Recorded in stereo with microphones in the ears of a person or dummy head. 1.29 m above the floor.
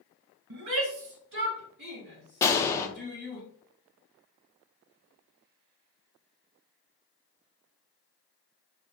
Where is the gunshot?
15° left (ahead or behind), 0.6 m.